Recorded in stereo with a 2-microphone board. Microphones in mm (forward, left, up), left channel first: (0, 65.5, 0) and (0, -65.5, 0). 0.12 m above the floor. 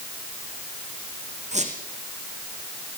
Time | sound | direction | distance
1.5 | a squeak | 55° right (ahead or behind) | 4.5 m